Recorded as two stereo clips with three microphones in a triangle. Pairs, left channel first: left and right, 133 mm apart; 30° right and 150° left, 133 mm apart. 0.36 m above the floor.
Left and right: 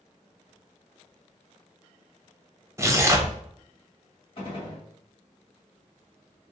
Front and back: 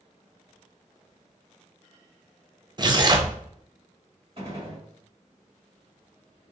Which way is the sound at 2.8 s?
155° right.